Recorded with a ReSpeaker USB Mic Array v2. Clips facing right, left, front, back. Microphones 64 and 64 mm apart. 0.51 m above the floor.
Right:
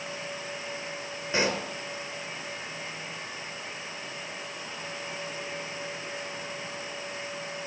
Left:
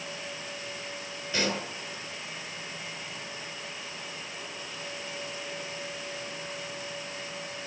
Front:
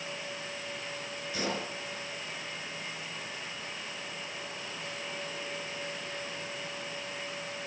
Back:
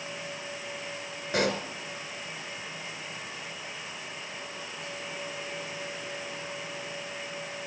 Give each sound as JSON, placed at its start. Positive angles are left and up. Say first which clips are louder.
{"t": 1.3, "sound": "a pop", "louder": "right 3 dB, back 7 dB", "azimuth_deg": -150, "distance_m": 3.5}